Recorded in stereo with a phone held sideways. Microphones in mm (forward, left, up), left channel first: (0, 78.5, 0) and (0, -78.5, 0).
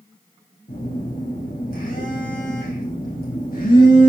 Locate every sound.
0.7 s a phone buzzing: 80° left, 6.5 m